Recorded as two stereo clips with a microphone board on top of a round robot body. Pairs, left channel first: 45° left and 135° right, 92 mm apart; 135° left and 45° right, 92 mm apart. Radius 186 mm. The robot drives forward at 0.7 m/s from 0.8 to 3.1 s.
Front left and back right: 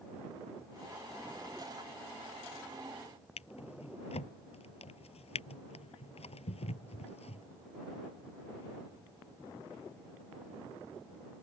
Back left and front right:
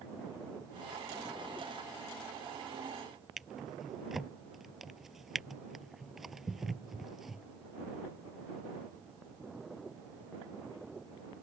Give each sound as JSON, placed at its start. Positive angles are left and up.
{"t": 3.4, "sound": "a drawer", "azimuth_deg": 40}